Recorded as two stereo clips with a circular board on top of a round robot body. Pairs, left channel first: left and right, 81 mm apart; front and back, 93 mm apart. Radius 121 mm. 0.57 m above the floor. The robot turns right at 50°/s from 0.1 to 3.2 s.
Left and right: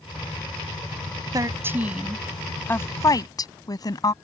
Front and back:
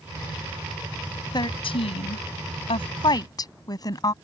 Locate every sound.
1.3 s a woman speaking: 45° right; by 4.1 s 50° left